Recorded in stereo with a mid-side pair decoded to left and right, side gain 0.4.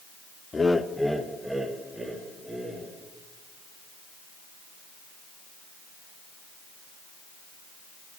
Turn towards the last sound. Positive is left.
turn(degrees=-30)